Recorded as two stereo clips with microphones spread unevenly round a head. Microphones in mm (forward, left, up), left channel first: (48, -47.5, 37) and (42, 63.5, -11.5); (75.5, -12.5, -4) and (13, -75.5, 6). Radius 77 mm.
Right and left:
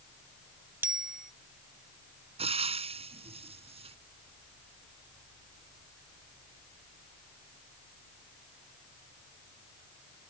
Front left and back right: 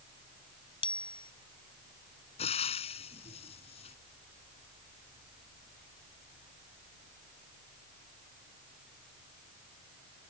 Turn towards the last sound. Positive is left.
turn(degrees=50)